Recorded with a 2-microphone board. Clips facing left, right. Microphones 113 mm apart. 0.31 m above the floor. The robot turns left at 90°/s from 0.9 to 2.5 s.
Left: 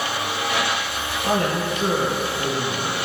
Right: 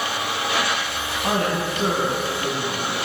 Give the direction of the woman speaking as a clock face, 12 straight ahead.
2 o'clock.